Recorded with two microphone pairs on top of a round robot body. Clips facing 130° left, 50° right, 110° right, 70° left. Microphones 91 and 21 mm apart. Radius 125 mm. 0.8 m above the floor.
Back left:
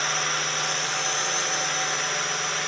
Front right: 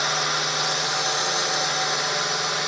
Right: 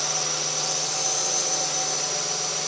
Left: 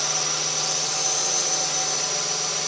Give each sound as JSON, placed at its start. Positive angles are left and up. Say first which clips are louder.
{"t": 0.0, "sound": "a drone", "louder": "front right 3 dB, left 2 dB", "azimuth_deg": 10}